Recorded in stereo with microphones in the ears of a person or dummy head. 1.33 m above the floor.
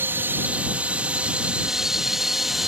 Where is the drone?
10° right (ahead or behind); by 2.7 s centre (ahead or behind).